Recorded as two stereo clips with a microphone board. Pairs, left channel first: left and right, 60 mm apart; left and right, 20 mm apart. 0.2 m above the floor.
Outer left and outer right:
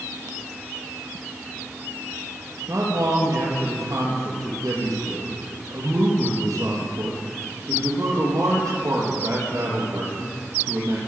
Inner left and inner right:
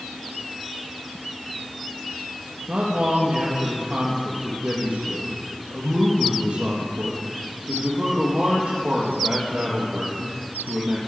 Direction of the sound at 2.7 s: 65° right (ahead or behind).